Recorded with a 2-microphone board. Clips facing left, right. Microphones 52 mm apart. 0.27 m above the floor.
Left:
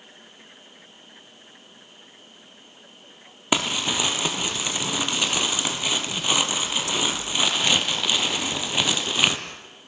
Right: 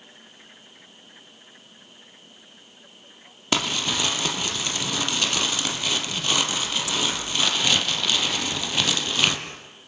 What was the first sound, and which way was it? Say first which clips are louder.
Crumpling: left 1 dB; 15° left (ahead or behind).